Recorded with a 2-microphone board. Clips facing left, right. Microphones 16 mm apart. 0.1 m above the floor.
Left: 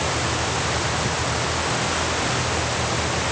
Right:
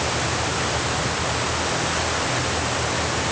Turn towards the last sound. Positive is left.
No sound to turn to.